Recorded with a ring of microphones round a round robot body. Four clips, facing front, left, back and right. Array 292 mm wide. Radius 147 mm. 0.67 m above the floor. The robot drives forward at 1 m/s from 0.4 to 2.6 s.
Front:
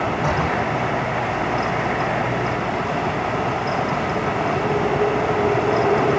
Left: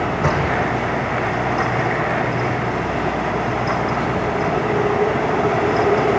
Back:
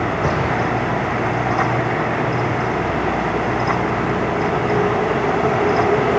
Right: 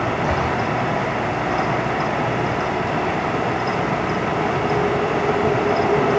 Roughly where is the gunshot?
Behind left.